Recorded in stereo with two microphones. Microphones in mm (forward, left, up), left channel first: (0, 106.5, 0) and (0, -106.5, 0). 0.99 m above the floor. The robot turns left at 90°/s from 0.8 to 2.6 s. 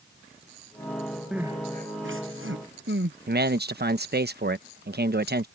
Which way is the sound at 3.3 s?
50° right (ahead or behind).